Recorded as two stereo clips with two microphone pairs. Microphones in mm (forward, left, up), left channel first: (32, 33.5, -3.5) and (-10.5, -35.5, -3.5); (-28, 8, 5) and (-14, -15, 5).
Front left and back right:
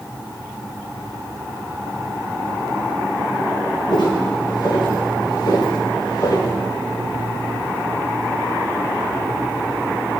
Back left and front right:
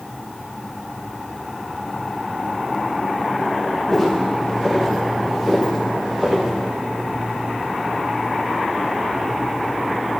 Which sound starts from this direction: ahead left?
Footsteps, at 3.9 s.